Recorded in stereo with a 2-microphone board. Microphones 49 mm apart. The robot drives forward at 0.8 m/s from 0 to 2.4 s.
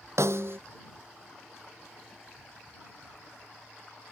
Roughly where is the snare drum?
Right.